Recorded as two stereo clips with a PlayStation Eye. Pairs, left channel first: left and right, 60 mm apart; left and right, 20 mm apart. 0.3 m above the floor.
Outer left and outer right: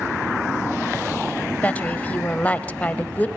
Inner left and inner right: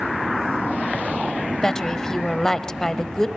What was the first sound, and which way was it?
A woman speaking, 25° left (ahead or behind).